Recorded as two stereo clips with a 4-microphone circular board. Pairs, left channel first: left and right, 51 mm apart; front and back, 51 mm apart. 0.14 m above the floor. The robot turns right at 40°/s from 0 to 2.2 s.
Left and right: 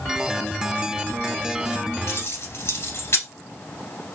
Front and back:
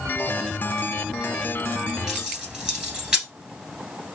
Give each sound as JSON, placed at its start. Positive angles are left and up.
{"t": 2.1, "sound": "keys jangling", "azimuth_deg": 100, "distance_m": 1.4}